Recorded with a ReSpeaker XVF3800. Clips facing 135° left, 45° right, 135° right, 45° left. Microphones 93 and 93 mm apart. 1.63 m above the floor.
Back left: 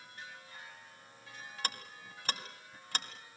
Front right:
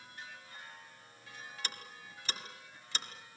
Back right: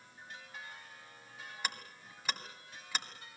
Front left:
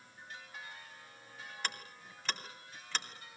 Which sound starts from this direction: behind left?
Ticking, at 1.6 s.